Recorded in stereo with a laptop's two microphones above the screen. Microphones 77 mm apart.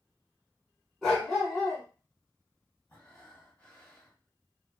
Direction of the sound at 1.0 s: 5° left (ahead or behind).